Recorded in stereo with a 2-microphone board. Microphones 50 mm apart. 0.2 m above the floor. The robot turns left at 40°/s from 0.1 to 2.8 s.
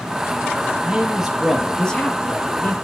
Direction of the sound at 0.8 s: 155° right.